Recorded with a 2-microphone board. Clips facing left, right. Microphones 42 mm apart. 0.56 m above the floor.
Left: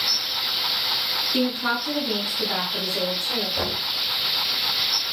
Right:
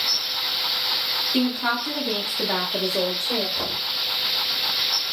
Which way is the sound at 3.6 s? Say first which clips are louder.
Left 1 dB; 40° left (ahead or behind).